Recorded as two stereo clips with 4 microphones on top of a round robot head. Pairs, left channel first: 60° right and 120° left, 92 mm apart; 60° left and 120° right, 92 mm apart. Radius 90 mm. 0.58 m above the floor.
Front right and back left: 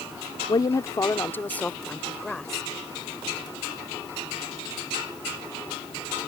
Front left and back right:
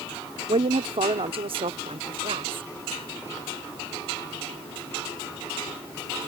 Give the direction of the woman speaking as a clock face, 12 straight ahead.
3 o'clock.